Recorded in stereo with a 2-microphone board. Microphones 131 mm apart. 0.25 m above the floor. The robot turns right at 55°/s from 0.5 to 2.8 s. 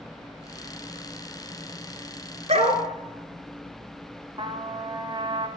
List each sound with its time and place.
2.5 s a dog barking: 60° right (ahead or behind), 1.5 m; by 2.8 s 45° right (ahead or behind), 1.5 m
4.4 s a trumpet: 40° right (ahead or behind), 1.2 m